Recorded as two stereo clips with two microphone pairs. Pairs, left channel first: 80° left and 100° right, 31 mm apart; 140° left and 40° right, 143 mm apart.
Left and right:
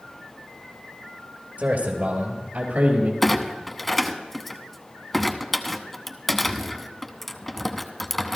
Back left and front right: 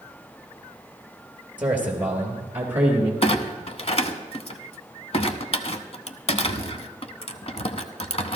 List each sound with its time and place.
1.6 s a man speaking: 115° right, 3.5 m
3.2 s a clunk: 160° left, 0.8 m